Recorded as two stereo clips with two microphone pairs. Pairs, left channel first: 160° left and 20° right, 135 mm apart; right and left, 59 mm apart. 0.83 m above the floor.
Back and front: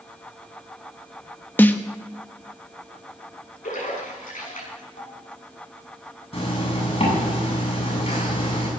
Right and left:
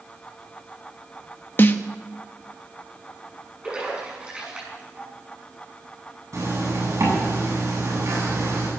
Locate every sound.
1.6 s a snare drum: 130° right, 1.1 m
3.6 s a splash: 165° left, 6.5 m
6.3 s a zipper: 115° left, 8.5 m